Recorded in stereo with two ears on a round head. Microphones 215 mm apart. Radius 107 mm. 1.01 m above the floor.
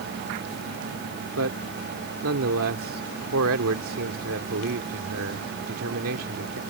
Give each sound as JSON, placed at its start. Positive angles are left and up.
{"t": 1.4, "sound": "a man speaking", "side_deg": -65}